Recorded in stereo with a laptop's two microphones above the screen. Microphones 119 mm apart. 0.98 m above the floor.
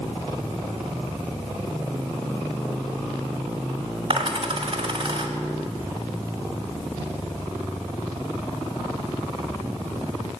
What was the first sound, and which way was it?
A dropped coin, 50° right (ahead or behind).